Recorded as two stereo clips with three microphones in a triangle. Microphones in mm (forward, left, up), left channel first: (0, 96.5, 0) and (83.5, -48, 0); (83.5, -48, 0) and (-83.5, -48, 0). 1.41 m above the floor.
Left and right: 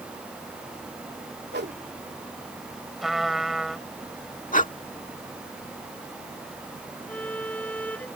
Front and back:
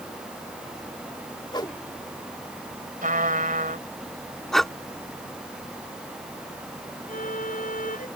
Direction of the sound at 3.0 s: 150° right.